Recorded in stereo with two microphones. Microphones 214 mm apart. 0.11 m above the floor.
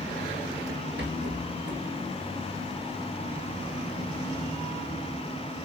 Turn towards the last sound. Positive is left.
turn(degrees=-60)  # may be behind; listen again after turning